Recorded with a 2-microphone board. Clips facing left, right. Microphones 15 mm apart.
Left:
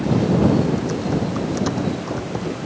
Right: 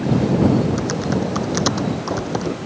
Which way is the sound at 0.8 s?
40° right (ahead or behind).